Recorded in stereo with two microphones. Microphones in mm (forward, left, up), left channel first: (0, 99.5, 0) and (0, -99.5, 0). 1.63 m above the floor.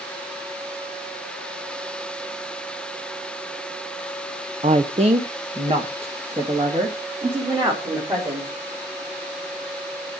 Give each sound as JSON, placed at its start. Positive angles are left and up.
{"t": 4.6, "sound": "a woman speaking", "side_deg": -35, "distance_m": 0.7}